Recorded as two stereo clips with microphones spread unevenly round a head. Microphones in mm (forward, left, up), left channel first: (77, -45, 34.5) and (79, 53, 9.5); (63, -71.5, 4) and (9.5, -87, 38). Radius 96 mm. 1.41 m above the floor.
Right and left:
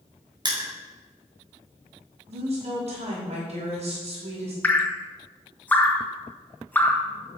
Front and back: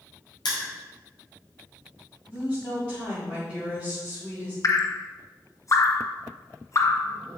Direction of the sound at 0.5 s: 40° left.